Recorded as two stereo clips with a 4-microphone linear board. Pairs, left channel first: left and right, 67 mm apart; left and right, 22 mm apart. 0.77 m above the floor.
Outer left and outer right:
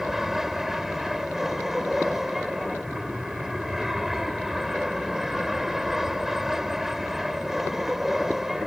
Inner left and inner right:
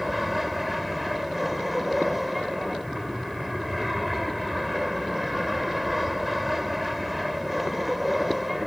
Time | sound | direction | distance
0.0 | an aircraft | 5° right (ahead or behind) | ?